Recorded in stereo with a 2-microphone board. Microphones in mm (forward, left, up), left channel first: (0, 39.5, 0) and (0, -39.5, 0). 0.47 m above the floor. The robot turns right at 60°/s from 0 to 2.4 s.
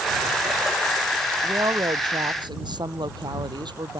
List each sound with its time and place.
1.4 s a woman speaking: 140° right; by 4.0 s 80° right